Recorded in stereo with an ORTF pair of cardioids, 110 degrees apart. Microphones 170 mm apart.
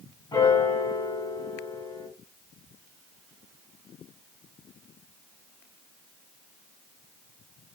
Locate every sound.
0.3 s a piano: 25° left, 1.8 m